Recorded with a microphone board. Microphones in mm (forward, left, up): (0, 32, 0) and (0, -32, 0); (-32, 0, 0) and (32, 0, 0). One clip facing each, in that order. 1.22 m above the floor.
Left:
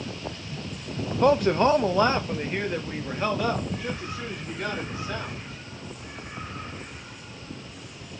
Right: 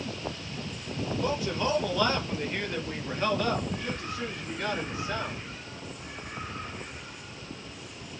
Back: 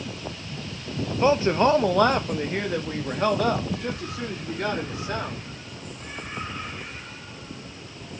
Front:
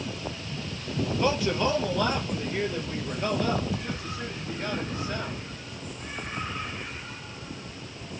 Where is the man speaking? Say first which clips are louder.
Left 11 dB, back 6 dB; 110° left, 0.8 m; by 5.4 s straight behind, 3.5 m.